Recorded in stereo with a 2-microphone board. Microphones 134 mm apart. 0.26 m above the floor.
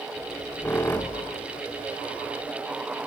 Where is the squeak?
15° left (ahead or behind), 1.3 m.